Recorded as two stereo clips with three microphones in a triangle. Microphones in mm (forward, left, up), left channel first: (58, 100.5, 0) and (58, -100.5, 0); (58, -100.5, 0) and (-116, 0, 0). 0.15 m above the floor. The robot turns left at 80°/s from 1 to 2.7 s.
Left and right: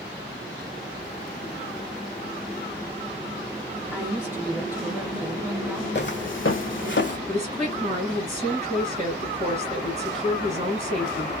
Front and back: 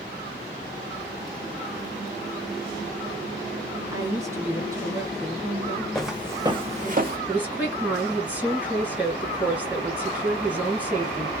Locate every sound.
3.9 s a woman speaking: 155° right, 1.7 m
6.0 s footsteps: 55° left, 0.6 m; by 7.2 s 115° left, 0.8 m
7.3 s a woman speaking: 130° right, 2.5 m